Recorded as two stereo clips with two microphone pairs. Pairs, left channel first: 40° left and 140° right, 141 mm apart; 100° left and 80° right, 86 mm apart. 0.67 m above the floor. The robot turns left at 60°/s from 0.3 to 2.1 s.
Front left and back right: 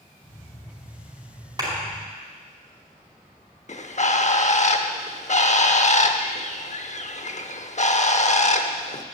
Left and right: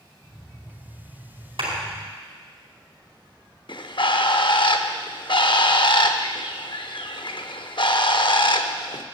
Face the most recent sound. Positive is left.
turn(degrees=75)